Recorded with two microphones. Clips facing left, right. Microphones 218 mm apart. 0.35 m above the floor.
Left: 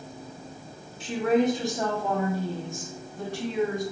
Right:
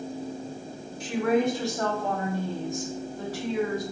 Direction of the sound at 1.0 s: 30° left (ahead or behind).